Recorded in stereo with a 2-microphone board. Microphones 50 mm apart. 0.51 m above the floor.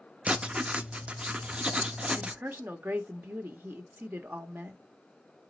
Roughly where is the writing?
Right.